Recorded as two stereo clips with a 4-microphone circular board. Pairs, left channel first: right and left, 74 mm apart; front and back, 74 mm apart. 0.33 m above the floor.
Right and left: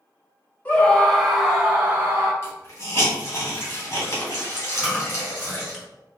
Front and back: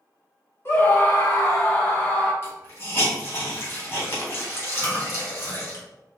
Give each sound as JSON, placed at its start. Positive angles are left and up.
{"t": 0.7, "sound": "a scream", "azimuth_deg": -35, "distance_m": 1.6}
{"t": 2.4, "sound": "a hiss", "azimuth_deg": -50, "distance_m": 2.0}
{"t": 4.7, "sound": "chewing", "azimuth_deg": 5, "distance_m": 2.0}